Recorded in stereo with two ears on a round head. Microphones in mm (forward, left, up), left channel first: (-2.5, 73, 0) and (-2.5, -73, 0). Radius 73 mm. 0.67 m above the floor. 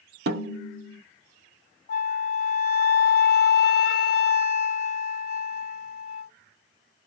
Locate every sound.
0.3 s a snare drum: 70° right (ahead or behind), 0.8 m
1.9 s a flute: 60° left (ahead or behind), 0.7 m